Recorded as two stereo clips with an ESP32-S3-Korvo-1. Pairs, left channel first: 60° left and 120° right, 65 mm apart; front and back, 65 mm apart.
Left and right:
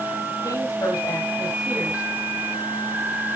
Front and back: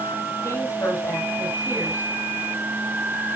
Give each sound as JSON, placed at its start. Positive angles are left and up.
{"t": 0.4, "sound": "a woman speaking", "azimuth_deg": 45, "distance_m": 6.5}